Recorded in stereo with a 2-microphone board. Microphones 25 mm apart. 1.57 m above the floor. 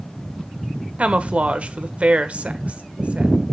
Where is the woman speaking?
55° right (ahead or behind), 1.5 m.